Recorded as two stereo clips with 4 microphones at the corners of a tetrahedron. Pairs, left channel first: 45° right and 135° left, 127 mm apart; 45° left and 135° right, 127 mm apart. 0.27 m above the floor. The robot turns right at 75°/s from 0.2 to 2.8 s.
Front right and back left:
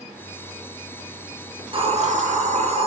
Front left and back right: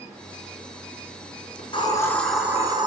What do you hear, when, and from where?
1.6 s a hiss: 80° left, 5 m; by 2.9 s 170° left, 5 m